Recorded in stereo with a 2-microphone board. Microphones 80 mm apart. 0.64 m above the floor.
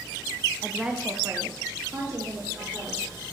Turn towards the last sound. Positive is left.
turn(degrees=-40)  # may be behind; listen again after turning